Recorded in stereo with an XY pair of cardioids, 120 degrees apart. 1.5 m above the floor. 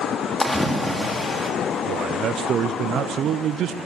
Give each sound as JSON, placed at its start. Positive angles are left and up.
{"t": 0.4, "sound": "a splash", "azimuth_deg": 10, "distance_m": 2.5}
{"t": 1.9, "sound": "a man speaking", "azimuth_deg": -60, "distance_m": 0.6}